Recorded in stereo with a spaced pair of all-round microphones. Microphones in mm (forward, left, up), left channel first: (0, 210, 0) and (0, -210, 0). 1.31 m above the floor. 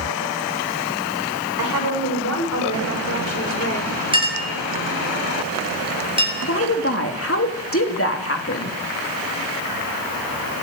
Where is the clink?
10° right (ahead or behind), 6.5 m.